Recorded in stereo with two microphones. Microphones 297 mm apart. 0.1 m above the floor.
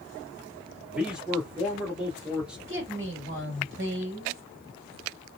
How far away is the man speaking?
About 1.4 m.